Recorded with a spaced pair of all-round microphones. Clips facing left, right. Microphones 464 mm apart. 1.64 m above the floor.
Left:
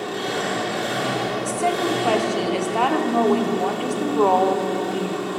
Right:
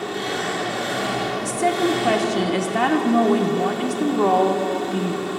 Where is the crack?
I don't hear a crack.